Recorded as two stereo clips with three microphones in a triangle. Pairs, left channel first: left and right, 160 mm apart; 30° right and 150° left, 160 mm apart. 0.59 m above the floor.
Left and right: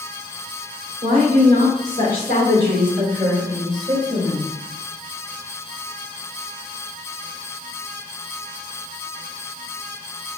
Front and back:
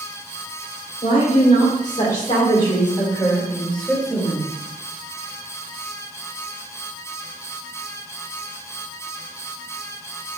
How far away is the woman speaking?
About 2 m.